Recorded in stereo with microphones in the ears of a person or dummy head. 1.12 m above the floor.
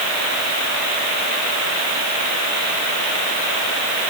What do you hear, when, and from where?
Only background noise.